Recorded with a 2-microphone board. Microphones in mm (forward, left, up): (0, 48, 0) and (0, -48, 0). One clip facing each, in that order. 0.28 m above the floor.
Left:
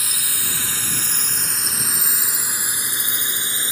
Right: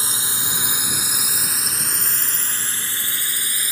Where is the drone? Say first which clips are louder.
Right 3 dB; 30° right (ahead or behind); by 3.7 s 25° left (ahead or behind).